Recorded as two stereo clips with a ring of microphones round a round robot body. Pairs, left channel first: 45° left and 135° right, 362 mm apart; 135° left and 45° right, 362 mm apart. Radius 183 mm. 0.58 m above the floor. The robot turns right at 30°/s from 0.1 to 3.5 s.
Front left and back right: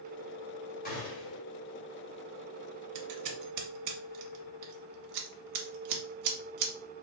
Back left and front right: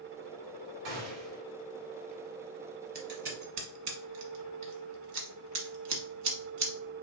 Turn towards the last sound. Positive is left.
turn(degrees=-95)